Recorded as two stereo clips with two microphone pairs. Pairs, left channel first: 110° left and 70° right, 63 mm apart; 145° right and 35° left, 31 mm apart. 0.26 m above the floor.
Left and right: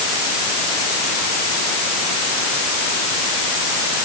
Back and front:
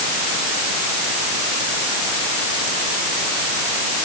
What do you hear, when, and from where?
Only background noise.